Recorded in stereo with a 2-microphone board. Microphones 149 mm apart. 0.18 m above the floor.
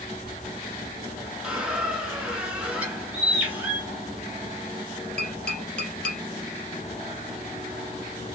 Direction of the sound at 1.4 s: 5° right (ahead or behind).